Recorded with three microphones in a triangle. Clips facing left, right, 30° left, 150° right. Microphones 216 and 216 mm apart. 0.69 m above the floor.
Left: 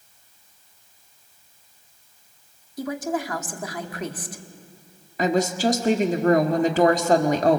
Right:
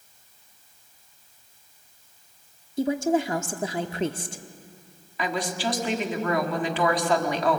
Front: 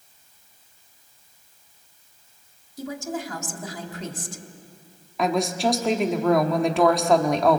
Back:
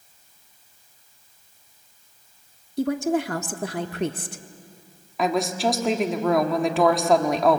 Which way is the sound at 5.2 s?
120° left.